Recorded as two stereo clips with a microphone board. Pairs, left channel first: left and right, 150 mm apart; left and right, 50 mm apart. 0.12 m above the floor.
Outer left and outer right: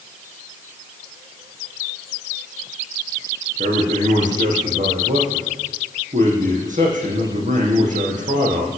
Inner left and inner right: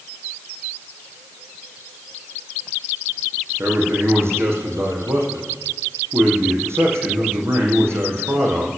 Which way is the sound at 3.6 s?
60° right (ahead or behind).